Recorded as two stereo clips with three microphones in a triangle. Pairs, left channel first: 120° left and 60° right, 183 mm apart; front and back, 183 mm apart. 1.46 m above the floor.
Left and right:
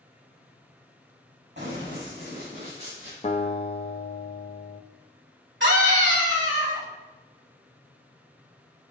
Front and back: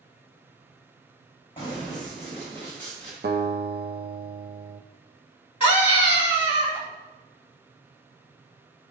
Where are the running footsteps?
60° right, 3.5 m; by 3.1 s 85° right, 5 m.